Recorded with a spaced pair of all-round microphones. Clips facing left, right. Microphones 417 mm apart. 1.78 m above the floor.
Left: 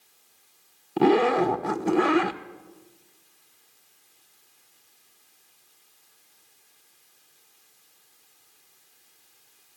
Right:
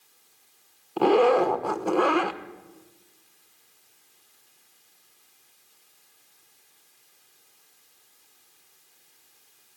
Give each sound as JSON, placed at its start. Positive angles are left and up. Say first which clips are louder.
{"t": 1.0, "sound": "a zipper", "louder": "right 1 dB", "side_deg": 35, "distance_m": 0.9}